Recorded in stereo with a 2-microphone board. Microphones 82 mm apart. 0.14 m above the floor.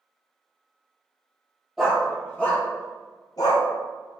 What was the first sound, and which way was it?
A dog barking, centre (ahead or behind).